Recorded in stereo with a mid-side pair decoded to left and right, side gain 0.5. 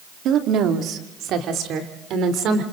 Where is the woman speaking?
70° right, 2.5 m.